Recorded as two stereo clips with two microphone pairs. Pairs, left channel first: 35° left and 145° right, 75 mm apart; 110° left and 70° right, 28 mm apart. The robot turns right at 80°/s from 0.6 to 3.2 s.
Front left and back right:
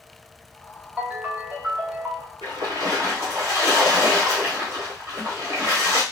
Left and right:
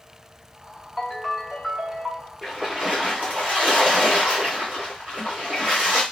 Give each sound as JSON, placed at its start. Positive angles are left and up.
{"t": 1.0, "sound": "a ringtone", "azimuth_deg": 165, "distance_m": 0.8}
{"t": 2.4, "sound": "a splash", "azimuth_deg": -155, "distance_m": 1.2}